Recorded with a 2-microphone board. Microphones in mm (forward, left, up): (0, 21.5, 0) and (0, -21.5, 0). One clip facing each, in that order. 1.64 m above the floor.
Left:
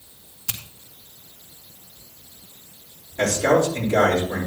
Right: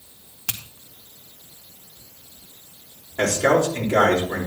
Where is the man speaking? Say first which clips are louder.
Even; 55° right (ahead or behind), 5 m.